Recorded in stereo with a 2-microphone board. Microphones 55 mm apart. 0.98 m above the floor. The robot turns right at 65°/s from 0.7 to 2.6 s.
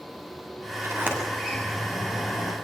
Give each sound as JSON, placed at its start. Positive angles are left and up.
{"t": 0.8, "sound": "a sliding door", "side_deg": -50, "distance_m": 7.5}